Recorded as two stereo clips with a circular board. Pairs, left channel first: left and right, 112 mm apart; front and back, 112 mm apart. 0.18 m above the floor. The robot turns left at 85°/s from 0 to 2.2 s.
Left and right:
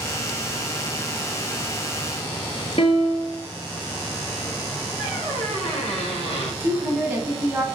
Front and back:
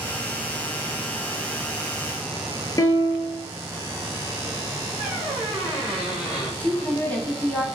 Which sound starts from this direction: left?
A squeak, at 5.0 s.